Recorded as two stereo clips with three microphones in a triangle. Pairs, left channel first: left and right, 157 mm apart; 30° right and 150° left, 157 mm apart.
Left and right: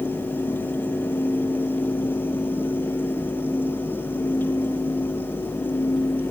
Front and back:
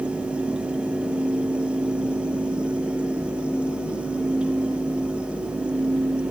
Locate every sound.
Only background noise.